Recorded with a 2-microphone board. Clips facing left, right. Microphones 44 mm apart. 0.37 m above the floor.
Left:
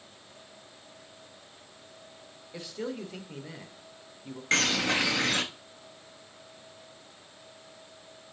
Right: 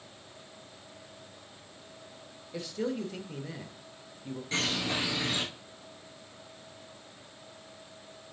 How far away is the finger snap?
No finger snap in this recording.